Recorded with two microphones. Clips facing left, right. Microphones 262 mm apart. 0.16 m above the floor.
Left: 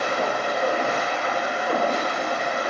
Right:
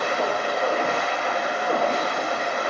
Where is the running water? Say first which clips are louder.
Even; 5° left (ahead or behind), 1.2 m.